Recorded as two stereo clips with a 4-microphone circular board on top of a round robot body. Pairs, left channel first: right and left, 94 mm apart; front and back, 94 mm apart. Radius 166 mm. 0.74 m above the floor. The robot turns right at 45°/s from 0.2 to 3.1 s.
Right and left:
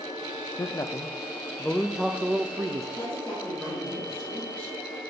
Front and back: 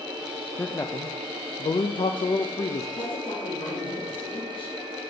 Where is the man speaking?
60° right, 0.6 m; by 2.9 s 40° left, 0.6 m.